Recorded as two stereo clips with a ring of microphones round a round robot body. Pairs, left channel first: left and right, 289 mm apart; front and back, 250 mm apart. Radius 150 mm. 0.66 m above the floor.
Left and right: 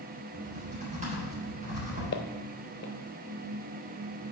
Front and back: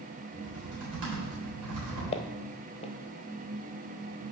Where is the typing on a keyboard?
155° right, 3.5 m.